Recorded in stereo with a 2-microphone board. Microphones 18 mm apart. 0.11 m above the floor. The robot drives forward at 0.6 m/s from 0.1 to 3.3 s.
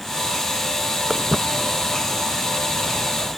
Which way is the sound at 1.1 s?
15° right (ahead or behind).